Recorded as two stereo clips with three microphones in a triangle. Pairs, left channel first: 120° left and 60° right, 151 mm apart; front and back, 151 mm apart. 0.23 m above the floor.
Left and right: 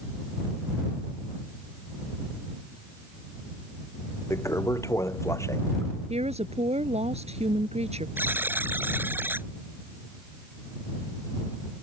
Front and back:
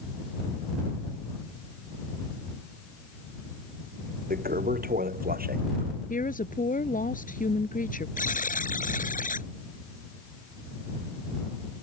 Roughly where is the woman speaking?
Ahead.